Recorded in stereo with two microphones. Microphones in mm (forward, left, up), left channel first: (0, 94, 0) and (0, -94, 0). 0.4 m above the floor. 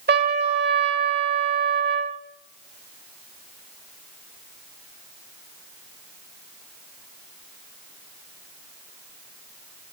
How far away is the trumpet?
About 0.9 m.